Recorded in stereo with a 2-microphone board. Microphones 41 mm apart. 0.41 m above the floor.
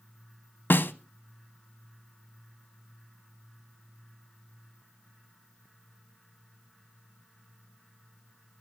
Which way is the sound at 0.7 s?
55° left (ahead or behind).